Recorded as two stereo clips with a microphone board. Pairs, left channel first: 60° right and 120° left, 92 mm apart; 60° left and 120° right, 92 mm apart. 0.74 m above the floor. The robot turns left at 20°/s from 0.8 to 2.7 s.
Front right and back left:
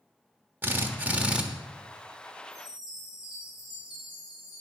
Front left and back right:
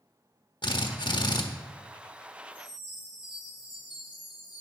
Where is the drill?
55° left, 1.3 m; by 1.4 s 40° left, 1.3 m.